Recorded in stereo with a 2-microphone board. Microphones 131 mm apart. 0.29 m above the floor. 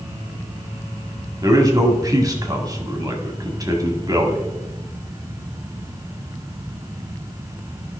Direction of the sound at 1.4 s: 30° right (ahead or behind).